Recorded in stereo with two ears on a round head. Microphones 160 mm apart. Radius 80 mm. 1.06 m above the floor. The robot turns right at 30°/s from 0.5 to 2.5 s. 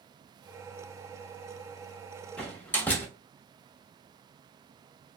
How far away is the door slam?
About 1.0 m.